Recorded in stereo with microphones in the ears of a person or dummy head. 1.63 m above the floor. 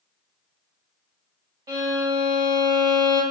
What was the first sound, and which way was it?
A violin, 20° right (ahead or behind).